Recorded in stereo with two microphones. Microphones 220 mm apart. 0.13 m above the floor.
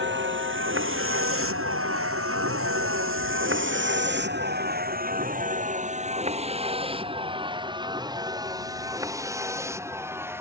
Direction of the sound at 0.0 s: 60° right (ahead or behind).